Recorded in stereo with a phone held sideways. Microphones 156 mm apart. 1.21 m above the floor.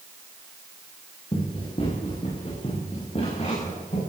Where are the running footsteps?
35° left (ahead or behind), 8 m; by 4.0 s 45° left (ahead or behind), 11 m.